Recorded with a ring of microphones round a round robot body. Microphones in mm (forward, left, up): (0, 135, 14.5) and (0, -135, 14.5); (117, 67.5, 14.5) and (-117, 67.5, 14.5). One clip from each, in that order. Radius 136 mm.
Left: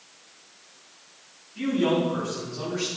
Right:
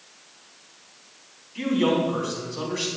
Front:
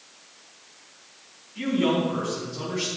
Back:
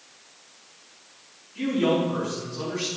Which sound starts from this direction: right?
A man speaking, at 1.6 s.